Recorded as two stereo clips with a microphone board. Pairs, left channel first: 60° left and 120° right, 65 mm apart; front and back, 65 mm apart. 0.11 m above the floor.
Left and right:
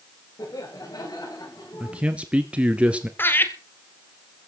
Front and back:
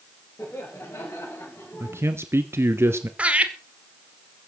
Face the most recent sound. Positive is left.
turn(degrees=115)